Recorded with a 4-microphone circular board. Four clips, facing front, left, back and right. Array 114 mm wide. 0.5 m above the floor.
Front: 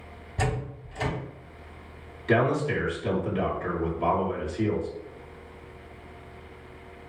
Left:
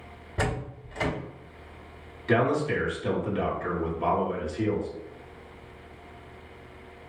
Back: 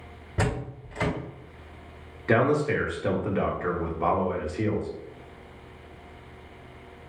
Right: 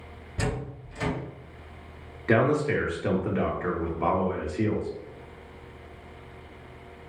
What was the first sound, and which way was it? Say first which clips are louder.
A door slam: left 1 dB, back 1 dB; 150° left.